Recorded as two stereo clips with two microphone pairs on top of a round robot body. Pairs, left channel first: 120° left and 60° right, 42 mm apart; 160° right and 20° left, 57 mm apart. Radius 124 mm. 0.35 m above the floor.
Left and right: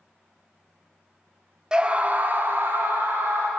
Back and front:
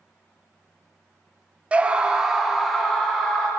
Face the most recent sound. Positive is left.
turn(degrees=-75)